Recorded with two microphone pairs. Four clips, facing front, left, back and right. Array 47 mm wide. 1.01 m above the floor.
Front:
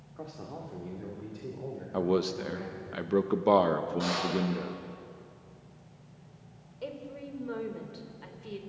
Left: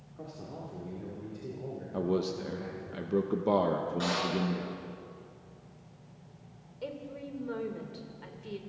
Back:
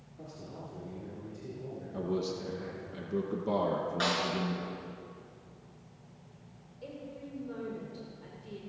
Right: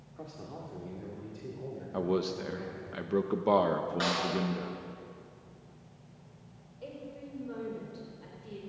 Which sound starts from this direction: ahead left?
A woman speaking, at 6.8 s.